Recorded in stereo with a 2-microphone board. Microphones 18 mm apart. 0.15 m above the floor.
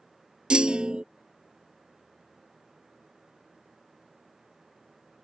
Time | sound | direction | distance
0.5 | a clunk | 65° right (ahead or behind) | ?